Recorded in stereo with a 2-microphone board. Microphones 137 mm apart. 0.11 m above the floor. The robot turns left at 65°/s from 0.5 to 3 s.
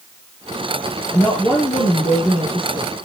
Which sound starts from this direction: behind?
A woman speaking, at 1.1 s.